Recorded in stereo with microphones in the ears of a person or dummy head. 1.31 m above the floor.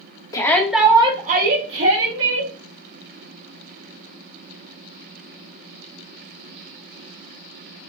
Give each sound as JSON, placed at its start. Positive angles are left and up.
{"t": 0.3, "sound": "a shout", "side_deg": 15, "distance_m": 0.7}